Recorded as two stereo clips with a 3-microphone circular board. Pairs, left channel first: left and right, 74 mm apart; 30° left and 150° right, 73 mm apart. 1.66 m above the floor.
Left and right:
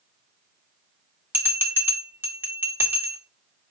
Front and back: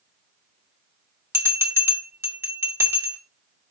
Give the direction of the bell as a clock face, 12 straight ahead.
4 o'clock.